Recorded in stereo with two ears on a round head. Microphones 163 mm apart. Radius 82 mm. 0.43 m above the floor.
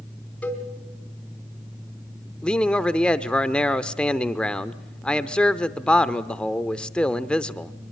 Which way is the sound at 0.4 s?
5° left (ahead or behind).